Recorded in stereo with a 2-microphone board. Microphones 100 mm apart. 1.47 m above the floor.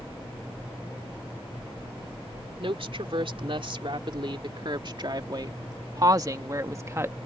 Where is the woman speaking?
65° right (ahead or behind); by 7.2 s 25° right (ahead or behind).